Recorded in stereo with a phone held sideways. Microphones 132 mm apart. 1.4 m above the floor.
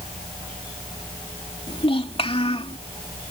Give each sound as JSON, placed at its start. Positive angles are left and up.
{"t": 1.7, "sound": "a child speaking", "side_deg": 45}